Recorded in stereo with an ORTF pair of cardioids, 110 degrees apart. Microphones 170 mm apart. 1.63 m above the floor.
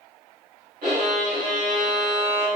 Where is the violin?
65° right, 1.6 m.